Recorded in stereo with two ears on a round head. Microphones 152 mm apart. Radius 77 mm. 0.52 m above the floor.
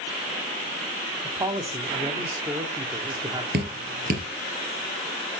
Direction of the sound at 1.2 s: 25° right (ahead or behind).